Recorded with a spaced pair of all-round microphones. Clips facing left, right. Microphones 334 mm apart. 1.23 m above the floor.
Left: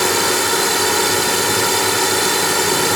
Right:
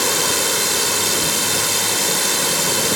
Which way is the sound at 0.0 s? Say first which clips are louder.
Left 4 dB; 75° left (ahead or behind).